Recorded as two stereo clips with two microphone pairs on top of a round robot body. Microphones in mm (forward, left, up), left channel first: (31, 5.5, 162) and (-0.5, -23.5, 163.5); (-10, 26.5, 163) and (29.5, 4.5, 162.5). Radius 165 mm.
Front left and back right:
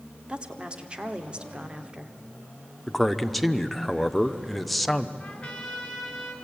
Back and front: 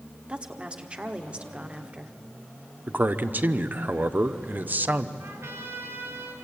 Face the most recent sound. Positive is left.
turn(degrees=-30)